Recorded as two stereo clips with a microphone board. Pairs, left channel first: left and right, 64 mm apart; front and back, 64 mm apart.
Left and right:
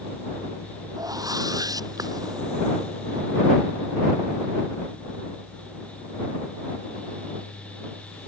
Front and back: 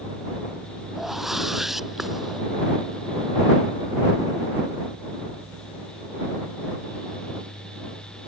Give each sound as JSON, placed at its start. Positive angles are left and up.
{"t": 1.0, "sound": "a whoosh", "azimuth_deg": -95}